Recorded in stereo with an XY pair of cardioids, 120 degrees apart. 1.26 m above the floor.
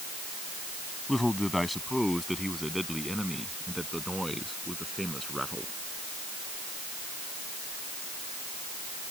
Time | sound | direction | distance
1.1 | a man speaking | 10° left | ?